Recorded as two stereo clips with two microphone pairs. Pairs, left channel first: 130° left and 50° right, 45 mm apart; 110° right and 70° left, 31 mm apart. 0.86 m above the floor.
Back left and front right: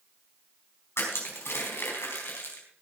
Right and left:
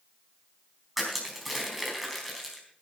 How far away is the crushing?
About 4 m.